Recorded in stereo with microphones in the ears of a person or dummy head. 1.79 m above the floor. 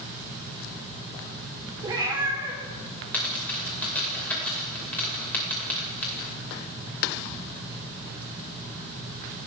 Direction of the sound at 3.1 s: 10° left (ahead or behind).